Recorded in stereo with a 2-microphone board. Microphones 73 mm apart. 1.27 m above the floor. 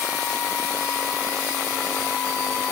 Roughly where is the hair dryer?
No hair dryer in this recording.